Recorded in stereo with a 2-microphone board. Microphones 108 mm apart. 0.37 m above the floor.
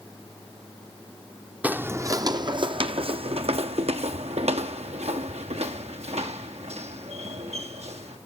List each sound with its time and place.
1.6 s footsteps: 15° right (ahead or behind), 0.7 m; by 8.2 s 85° right, 3.5 m